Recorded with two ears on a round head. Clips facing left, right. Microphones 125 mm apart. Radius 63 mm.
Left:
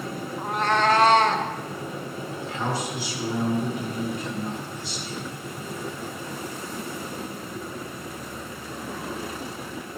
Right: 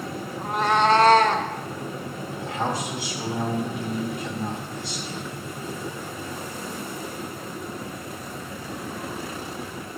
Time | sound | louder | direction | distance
0.4 | a cat meowing | right 2 dB | 10° left (ahead or behind) | 0.8 m
2.4 | a man speaking | right 2 dB | 50° right (ahead or behind) | 3 m